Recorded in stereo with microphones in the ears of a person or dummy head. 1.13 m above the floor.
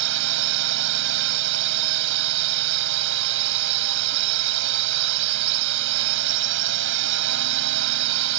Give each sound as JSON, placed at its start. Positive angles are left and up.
{"t": 0.0, "sound": "a drone", "side_deg": -70}